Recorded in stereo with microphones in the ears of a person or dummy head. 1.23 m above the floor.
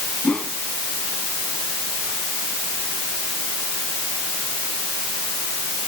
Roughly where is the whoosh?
Centre.